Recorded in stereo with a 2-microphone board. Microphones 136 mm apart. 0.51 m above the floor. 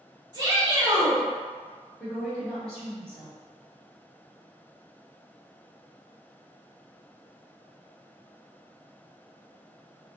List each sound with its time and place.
0.3 s a shout: 30° right (ahead or behind), 1.6 m
2.0 s a woman speaking: 5° left (ahead or behind), 1.5 m